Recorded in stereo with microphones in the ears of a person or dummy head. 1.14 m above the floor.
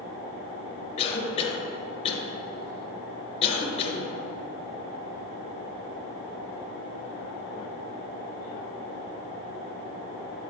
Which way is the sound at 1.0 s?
40° left (ahead or behind).